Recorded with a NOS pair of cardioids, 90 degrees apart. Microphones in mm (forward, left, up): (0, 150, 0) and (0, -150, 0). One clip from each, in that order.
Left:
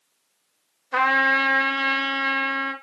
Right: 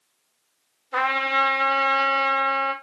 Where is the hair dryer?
No hair dryer in this recording.